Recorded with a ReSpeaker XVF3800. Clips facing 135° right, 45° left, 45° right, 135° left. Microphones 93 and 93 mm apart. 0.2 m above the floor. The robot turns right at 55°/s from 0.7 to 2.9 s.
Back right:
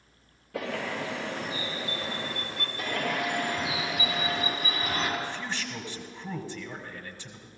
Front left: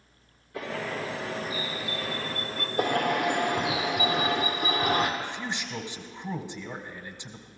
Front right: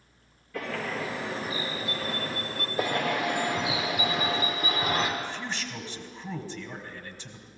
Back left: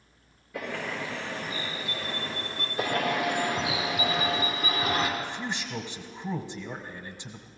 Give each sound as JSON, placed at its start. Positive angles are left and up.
{"t": 0.5, "sound": "a bird", "azimuth_deg": -150, "distance_m": 3.5}
{"t": 2.8, "sound": "a bird", "azimuth_deg": 10, "distance_m": 2.5}
{"t": 5.2, "sound": "a man speaking", "azimuth_deg": 90, "distance_m": 1.0}